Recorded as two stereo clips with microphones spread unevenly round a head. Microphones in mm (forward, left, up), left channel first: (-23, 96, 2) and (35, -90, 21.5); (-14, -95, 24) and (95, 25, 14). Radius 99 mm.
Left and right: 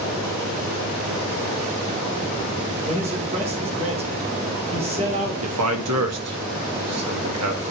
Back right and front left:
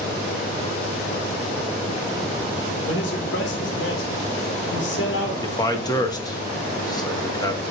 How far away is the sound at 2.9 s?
About 1.8 m.